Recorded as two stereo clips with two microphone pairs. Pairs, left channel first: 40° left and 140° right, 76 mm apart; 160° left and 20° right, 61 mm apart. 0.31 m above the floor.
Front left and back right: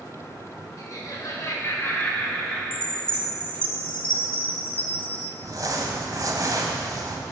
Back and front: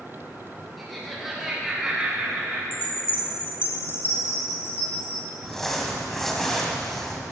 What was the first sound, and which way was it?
Laughter, 70° left.